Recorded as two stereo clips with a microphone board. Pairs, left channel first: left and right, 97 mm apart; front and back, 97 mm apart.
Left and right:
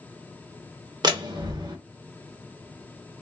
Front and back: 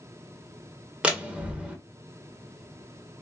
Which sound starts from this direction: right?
A door slam, at 1.0 s.